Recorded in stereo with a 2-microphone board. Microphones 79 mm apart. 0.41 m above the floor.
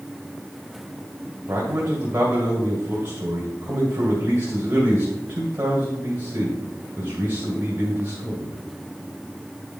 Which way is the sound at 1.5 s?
25° right (ahead or behind).